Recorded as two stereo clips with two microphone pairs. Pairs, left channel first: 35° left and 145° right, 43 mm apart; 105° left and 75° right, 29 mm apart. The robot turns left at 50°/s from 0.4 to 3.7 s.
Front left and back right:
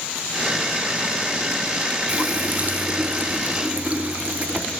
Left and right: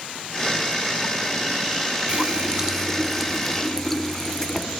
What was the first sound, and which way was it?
A running tap, 105° right.